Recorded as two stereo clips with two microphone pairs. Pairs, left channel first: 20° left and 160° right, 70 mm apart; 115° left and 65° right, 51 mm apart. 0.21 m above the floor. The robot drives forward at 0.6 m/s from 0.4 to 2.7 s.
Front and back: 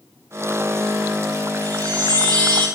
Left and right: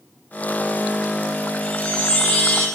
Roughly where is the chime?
Behind.